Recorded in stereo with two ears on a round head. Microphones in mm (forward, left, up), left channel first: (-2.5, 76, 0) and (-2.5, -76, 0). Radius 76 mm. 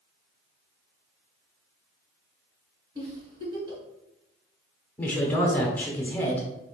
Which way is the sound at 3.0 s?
30° right (ahead or behind).